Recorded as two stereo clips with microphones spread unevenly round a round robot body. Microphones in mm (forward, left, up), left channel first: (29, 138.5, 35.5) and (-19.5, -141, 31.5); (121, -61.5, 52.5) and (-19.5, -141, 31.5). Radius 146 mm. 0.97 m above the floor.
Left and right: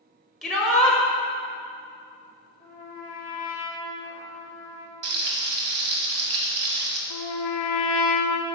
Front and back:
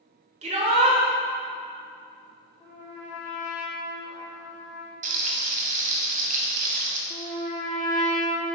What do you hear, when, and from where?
0.4 s a shout: 170° left, 1.0 m
2.6 s a trumpet: 20° left, 1.0 m
5.0 s frying: 125° right, 1.1 m
7.1 s a trumpet: 100° left, 0.5 m